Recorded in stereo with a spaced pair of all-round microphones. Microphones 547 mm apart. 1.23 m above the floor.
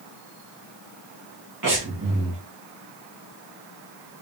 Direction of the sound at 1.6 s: 35° right (ahead or behind).